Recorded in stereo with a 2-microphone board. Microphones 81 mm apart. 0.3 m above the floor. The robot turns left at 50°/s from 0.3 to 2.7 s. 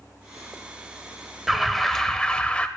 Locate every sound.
1.5 s an alarm: centre (ahead or behind), 0.6 m; by 2.7 s 15° left (ahead or behind), 0.6 m